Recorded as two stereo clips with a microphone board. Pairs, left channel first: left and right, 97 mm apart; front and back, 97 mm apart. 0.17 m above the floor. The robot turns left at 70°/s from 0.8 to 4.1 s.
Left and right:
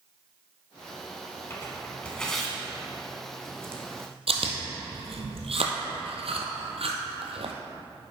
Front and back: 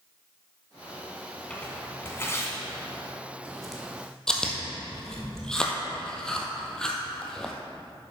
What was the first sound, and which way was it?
Tearing paper, 65° left.